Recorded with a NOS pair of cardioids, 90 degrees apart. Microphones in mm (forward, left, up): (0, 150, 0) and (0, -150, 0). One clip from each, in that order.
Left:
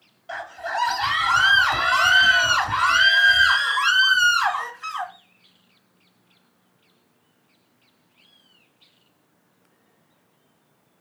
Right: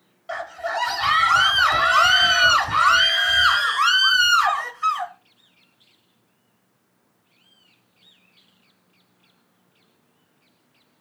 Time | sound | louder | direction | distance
0.3 | a scream | right 2 dB | 25° right | 5.5 m